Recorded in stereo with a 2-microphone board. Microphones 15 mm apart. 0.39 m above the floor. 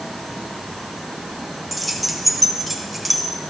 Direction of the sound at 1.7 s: 5° left (ahead or behind).